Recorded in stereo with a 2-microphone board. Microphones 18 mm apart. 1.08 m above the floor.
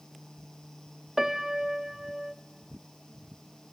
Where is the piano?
25° right (ahead or behind), 0.7 m.